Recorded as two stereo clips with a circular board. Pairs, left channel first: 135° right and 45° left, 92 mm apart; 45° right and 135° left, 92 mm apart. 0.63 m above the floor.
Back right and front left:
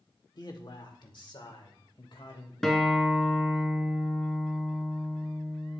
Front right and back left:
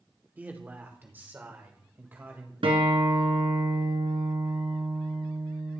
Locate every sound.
0.4 s a man speaking: 160° right, 1.6 m
2.6 s a guitar: 140° left, 1.9 m